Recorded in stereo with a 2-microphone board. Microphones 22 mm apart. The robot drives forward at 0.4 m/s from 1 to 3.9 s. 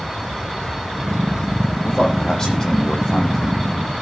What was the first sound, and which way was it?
A man speaking, 35° left (ahead or behind).